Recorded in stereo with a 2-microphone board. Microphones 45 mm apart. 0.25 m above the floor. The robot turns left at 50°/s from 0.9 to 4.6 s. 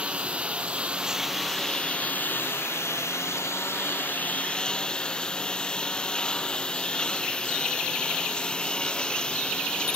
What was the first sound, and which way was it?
A lawn mower, 155° right.